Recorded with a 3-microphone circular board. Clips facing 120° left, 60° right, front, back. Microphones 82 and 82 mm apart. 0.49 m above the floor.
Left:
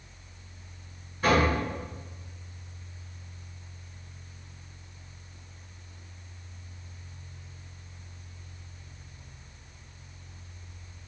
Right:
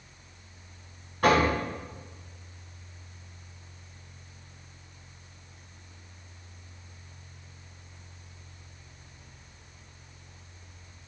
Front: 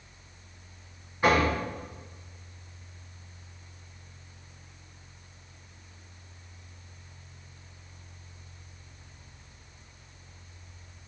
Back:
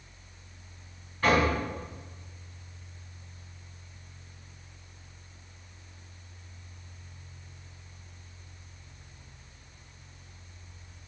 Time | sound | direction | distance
1.2 | knocking | 75° right | 4 m